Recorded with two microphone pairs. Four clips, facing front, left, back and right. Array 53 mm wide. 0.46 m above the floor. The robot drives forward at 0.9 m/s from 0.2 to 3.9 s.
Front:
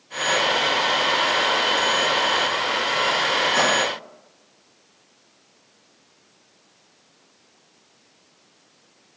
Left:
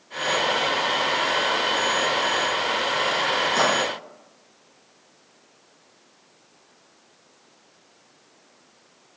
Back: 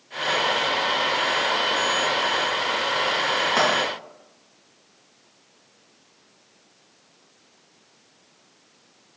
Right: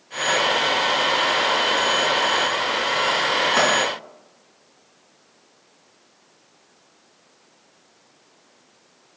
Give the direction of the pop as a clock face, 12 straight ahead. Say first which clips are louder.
Right 2 dB, back 1 dB; 5 o'clock.